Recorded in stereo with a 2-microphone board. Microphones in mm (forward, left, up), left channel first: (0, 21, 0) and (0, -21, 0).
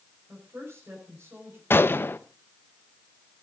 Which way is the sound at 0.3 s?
85° right.